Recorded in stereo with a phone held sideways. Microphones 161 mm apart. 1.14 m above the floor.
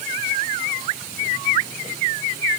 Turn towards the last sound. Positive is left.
No sound to turn to.